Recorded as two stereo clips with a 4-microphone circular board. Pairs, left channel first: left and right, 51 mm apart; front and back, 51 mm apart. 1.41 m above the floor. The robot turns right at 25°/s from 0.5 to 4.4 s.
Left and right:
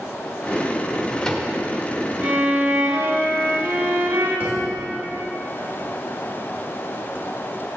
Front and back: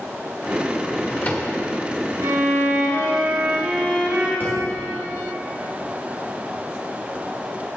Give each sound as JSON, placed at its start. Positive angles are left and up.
{"t": 0.9, "sound": "a drawer", "azimuth_deg": 10, "distance_m": 1.2}
{"t": 2.2, "sound": "a violin", "azimuth_deg": -155, "distance_m": 2.5}
{"t": 4.4, "sound": "a thud", "azimuth_deg": -40, "distance_m": 2.0}